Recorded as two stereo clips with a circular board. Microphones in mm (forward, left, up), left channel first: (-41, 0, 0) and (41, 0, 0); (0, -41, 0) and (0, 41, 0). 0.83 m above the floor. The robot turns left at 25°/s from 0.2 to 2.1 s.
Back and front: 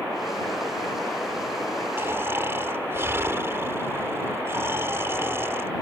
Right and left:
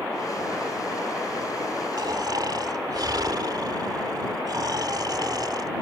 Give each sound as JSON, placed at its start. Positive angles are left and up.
{"t": 2.0, "sound": "snoring", "azimuth_deg": 60}